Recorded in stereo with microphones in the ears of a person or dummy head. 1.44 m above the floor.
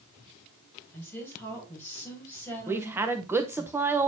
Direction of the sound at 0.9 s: 10° left (ahead or behind).